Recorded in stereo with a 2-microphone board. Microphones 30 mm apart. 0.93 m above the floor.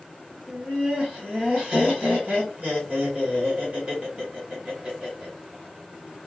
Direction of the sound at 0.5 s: 35° right (ahead or behind).